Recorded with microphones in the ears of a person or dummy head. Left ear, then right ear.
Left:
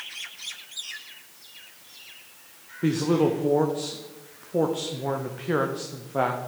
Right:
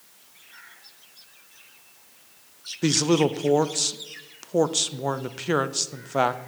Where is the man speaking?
75° right (ahead or behind), 0.5 m.